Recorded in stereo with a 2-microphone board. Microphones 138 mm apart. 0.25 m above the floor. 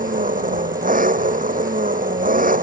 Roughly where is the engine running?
Right.